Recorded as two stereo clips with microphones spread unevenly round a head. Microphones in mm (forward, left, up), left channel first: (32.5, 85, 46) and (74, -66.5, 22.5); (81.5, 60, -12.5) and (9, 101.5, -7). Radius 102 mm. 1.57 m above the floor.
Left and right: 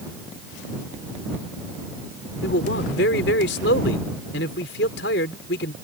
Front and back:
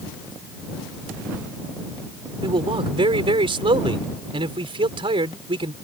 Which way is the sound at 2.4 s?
140° left.